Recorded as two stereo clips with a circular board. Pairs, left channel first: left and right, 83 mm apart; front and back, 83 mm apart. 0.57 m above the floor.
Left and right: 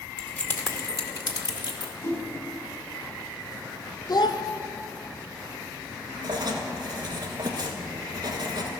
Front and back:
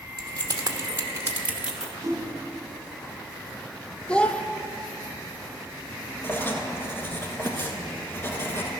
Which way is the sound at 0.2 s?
160° left.